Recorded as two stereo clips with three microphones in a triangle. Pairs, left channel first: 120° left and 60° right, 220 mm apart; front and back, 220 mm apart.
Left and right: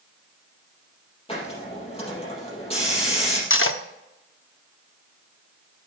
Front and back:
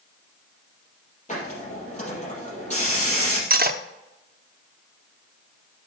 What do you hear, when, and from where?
1.3 s a hiss: 55° left, 4 m
3.5 s cutlery clinking: 135° left, 0.7 m